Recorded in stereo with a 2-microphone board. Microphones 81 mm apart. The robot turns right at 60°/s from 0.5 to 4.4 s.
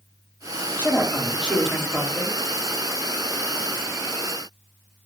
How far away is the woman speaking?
About 0.7 m.